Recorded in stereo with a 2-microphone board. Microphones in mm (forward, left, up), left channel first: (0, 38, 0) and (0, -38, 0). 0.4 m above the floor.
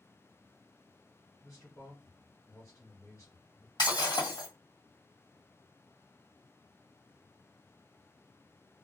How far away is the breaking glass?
About 1.6 m.